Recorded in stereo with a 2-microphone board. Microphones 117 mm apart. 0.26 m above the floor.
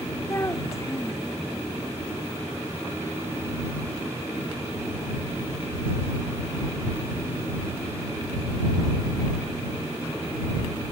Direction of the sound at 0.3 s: 25° left (ahead or behind).